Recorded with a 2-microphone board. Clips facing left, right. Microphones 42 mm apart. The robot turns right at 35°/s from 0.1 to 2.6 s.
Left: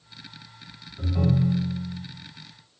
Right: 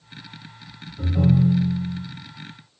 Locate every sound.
1.0 s a ringtone: 175° left, 1.2 m; by 2.0 s 150° right, 1.2 m